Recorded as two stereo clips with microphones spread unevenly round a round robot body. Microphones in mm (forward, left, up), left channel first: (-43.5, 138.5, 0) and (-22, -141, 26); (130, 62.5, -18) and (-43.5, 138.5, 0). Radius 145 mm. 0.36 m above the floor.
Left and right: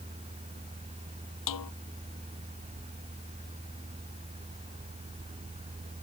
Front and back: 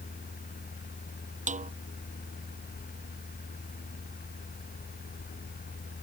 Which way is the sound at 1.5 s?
105° left.